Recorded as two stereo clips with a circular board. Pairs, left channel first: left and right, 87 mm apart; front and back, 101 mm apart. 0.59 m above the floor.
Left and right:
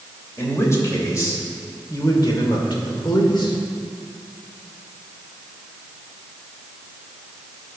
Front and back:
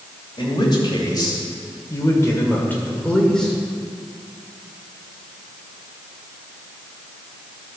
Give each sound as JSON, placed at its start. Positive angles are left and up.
{"t": 0.4, "sound": "a man speaking", "azimuth_deg": 35, "distance_m": 3.0}